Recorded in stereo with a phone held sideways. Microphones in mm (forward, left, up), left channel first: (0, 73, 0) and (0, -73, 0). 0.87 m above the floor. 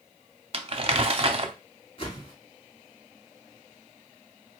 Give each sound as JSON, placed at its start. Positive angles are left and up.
{"t": 0.5, "sound": "crumpling", "side_deg": -40, "distance_m": 0.6}
{"t": 2.0, "sound": "a whoosh", "side_deg": 45, "distance_m": 1.9}